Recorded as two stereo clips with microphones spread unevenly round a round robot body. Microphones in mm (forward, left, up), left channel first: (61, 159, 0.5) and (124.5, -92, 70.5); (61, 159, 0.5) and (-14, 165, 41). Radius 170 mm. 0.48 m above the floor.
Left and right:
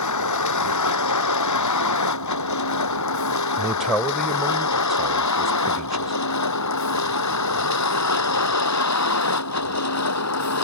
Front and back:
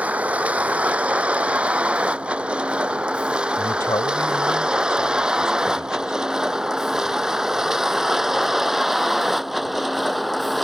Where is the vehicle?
105° left; by 10.7 s 85° left.